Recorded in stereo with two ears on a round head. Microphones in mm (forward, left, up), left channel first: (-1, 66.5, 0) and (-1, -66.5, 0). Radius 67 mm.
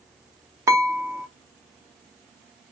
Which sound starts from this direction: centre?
Dishes clattering, at 0.7 s.